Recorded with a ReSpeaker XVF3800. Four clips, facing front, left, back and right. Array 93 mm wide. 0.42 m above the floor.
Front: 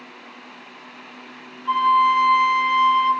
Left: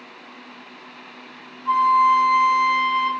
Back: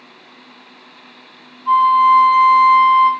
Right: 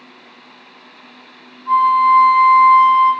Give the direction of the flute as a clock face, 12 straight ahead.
6 o'clock.